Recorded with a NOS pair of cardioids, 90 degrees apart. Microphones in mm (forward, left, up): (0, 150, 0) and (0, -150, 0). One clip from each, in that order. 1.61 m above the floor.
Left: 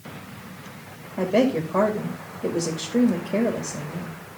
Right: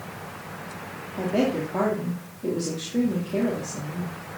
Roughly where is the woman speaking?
Ahead left.